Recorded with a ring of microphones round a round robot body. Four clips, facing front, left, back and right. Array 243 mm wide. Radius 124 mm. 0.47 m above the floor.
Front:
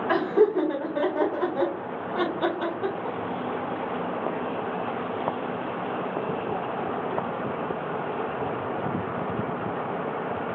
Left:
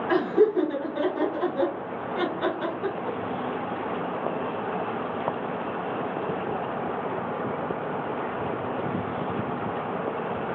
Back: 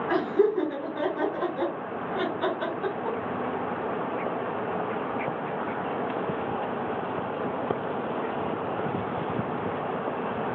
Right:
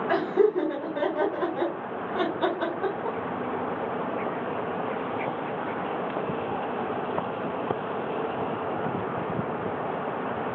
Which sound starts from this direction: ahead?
Laughter, at 0.1 s.